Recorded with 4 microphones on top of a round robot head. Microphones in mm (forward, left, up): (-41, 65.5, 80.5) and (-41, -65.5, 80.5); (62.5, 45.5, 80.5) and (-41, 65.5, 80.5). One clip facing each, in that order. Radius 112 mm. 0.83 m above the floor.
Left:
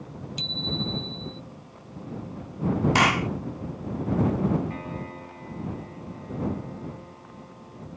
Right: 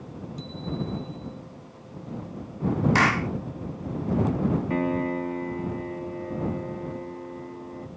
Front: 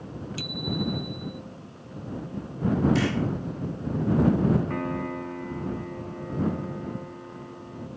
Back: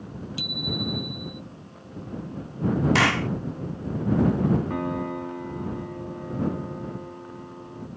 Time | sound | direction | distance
0.4 | a bicycle bell | 100° left | ?
3.0 | a clap | 160° left | ?
4.7 | a piano | 115° right | ?